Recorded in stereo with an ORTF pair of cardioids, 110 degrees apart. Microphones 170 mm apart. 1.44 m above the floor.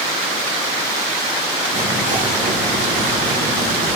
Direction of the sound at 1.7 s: 65° right.